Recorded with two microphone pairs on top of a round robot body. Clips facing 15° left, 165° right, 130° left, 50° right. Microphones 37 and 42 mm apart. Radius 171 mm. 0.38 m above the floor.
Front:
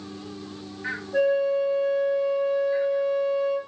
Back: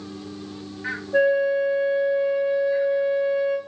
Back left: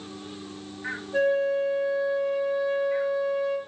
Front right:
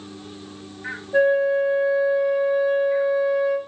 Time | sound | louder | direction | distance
1.1 | a flute | back 3 dB, front right 5 dB | 105° right | 2.0 m